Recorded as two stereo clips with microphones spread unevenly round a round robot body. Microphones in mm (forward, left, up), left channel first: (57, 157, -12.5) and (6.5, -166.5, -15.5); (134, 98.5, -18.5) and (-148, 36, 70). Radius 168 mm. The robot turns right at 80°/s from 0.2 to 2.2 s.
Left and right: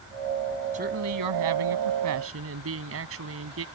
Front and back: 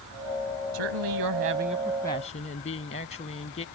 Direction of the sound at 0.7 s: 170° right.